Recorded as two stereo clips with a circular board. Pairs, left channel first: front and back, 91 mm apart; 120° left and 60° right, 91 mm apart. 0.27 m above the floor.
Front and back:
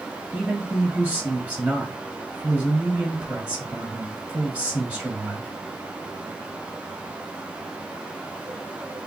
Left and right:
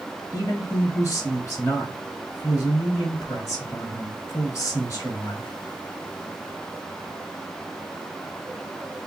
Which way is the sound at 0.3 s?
115° left.